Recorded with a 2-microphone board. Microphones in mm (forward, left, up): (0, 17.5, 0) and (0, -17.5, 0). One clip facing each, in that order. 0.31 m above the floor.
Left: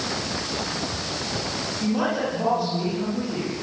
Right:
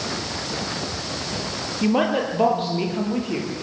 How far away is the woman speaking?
About 8.5 m.